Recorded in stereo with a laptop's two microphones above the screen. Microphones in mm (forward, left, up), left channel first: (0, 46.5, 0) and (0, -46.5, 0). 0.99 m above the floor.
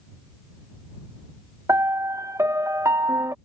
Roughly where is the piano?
Right.